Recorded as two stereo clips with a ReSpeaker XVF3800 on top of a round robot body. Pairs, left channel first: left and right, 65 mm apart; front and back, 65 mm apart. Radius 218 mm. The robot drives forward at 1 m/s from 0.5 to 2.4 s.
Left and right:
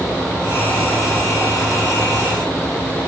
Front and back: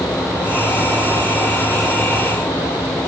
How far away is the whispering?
I don't hear whispering.